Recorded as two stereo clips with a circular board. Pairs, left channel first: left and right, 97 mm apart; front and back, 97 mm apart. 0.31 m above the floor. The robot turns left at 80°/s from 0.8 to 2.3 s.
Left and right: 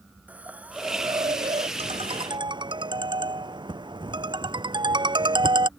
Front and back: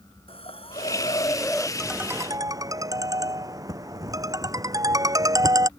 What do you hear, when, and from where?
0.3 s a hiss: 15° right; by 1.7 s 85° right
1.8 s a ringtone: 85° right; by 5.7 s 130° right